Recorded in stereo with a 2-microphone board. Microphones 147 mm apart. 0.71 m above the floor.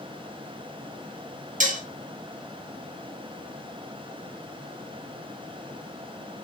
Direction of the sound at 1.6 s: 60° right (ahead or behind).